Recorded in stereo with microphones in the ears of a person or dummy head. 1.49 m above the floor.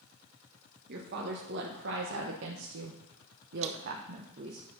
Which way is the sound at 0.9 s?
50° right (ahead or behind).